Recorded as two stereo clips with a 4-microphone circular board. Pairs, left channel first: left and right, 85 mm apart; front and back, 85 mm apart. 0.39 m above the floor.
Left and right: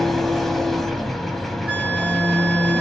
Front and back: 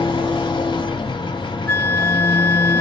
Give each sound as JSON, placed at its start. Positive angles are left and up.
{"t": 0.0, "sound": "an engine running", "azimuth_deg": 0, "distance_m": 0.8}
{"t": 1.7, "sound": "a flute", "azimuth_deg": -35, "distance_m": 1.5}